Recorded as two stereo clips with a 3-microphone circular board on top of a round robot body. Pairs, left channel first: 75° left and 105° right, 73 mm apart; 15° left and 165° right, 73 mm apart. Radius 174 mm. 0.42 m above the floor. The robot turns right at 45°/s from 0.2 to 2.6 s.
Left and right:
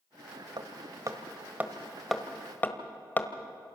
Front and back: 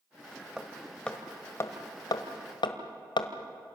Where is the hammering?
85° right, 1.6 m; by 3.3 s 10° left, 1.6 m.